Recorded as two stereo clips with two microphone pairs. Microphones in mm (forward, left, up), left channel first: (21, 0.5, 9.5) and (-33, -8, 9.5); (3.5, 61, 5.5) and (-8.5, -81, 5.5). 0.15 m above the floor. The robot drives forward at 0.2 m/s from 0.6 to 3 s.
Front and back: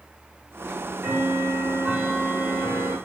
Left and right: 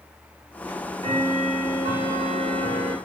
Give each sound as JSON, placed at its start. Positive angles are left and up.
{"t": 0.6, "sound": "ticking", "azimuth_deg": -120, "distance_m": 1.1}